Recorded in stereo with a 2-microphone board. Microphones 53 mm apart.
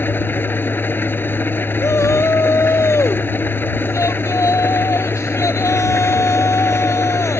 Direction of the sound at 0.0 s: 40° left (ahead or behind).